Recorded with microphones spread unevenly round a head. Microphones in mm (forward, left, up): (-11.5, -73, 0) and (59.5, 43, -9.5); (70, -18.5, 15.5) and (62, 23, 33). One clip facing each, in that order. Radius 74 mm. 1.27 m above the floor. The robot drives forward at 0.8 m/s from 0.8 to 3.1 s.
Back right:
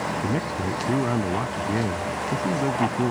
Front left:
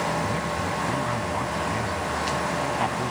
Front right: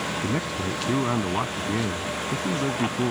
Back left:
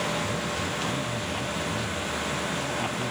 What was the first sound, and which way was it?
A man speaking, 85° right.